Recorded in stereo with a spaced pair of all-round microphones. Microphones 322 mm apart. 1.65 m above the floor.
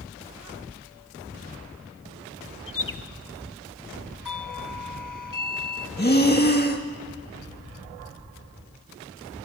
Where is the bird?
85° left, 0.8 m.